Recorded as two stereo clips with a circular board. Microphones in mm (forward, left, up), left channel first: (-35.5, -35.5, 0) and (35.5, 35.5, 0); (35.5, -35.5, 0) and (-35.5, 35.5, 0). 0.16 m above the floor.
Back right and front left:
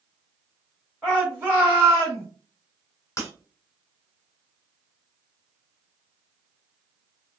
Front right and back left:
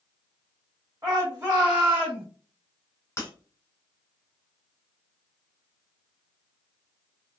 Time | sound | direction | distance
1.0 | a shout | 130° left | 1.9 m
3.2 | breaking glass | 95° right | 1.0 m